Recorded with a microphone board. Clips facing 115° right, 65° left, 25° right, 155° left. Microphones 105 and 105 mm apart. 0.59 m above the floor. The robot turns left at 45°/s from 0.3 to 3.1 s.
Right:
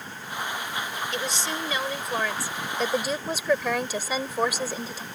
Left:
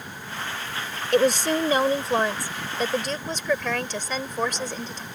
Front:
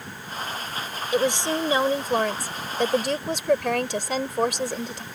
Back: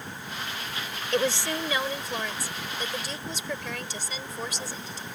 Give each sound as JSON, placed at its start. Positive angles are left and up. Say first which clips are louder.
{"t": 1.1, "sound": "a woman speaking", "louder": "left 14 dB, front 4 dB", "azimuth_deg": 55}